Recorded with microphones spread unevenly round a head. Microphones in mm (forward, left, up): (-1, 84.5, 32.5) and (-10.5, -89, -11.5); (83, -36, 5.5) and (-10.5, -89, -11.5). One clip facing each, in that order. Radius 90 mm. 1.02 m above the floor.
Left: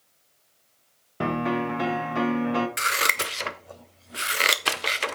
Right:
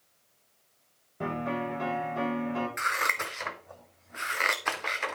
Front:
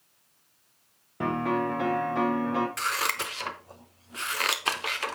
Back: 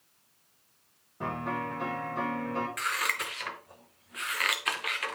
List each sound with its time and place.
1.2 s a piano: 85° left, 1.6 m
2.8 s scissors: 80° left, 0.7 m